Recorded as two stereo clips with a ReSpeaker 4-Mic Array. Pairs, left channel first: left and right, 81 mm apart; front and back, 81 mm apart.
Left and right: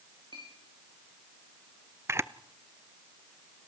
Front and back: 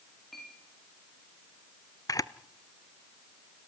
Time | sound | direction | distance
0.3 | a clink | 90° right | 9.5 m
2.1 | a camera shutter | 35° right | 0.6 m